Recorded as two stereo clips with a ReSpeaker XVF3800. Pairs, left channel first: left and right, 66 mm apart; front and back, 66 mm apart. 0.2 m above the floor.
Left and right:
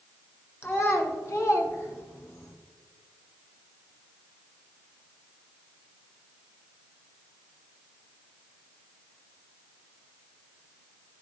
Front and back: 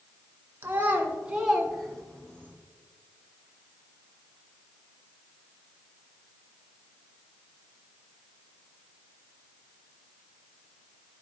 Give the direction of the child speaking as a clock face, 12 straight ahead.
8 o'clock.